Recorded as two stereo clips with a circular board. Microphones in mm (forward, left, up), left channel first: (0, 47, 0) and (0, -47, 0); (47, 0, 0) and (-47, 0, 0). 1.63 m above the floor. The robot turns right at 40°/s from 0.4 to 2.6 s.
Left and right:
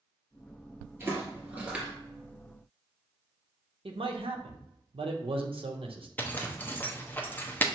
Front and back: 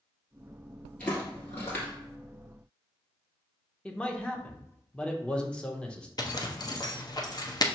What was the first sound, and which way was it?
Footsteps, 60° right.